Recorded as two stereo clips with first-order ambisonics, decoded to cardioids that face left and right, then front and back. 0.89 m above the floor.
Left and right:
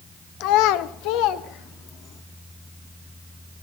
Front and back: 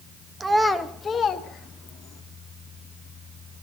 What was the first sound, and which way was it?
A child speaking, 105° left.